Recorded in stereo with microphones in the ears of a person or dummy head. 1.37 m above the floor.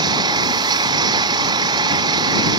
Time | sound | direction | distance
0.0 | an engine running | 25° right (ahead or behind) | ?